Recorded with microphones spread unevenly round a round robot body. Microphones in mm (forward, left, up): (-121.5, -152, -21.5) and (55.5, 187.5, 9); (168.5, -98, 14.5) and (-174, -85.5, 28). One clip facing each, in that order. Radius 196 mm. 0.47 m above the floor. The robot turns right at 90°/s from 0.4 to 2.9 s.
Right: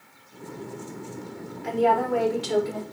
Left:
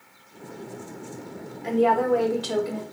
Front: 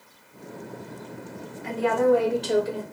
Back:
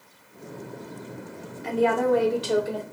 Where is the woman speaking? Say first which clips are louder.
Left 2 dB, front 1 dB; 175° right, 1.0 m; by 2.8 s 70° right, 1.0 m.